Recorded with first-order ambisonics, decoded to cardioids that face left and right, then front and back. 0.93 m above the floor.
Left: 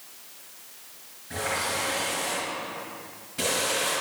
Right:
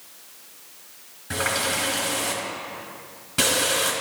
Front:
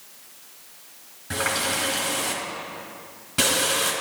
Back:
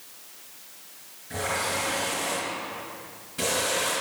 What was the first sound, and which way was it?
A running tap, 40° right.